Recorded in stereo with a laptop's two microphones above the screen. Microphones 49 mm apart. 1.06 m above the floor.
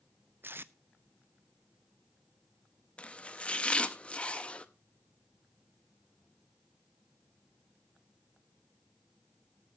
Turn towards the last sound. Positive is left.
turn(degrees=25)  # may be behind; listen again after turning